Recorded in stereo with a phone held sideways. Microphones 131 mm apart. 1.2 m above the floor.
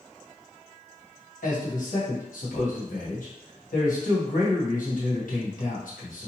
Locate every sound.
1.4 s a man speaking: 70° left (ahead or behind), 1.2 m